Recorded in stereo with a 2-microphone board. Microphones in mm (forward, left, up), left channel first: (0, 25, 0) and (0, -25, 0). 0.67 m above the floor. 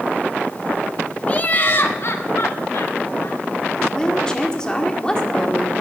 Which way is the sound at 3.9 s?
15° left (ahead or behind).